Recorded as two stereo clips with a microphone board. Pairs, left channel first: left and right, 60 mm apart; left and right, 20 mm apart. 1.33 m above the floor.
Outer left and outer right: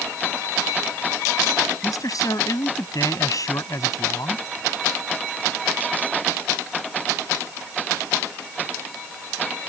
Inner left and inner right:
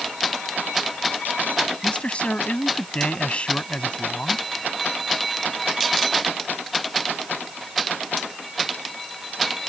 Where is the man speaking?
75° left (ahead or behind).